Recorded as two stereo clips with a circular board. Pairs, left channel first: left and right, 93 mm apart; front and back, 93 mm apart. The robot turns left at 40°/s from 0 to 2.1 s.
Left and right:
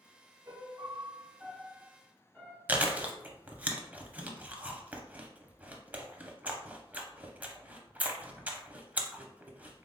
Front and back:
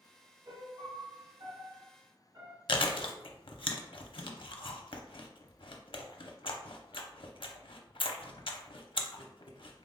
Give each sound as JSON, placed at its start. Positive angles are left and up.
{"t": 0.5, "sound": "a piano", "azimuth_deg": -135, "distance_m": 1.3}
{"t": 2.7, "sound": "chewing", "azimuth_deg": -20, "distance_m": 0.5}